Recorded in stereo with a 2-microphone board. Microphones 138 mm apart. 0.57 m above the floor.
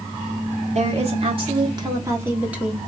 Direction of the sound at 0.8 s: 50° right (ahead or behind).